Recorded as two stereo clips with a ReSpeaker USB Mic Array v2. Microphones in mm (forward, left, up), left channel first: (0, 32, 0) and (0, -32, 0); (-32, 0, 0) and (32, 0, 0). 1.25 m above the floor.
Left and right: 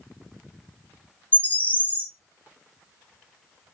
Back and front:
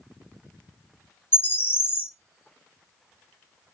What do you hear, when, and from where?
1.3 s a bird: 145° left, 0.5 m